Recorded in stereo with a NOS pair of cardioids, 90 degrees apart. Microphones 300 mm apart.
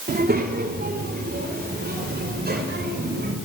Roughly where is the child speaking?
Ahead right.